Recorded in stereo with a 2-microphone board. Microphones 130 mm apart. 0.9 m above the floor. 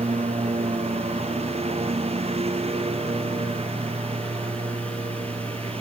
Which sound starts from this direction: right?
A lawn mower, at 0.0 s.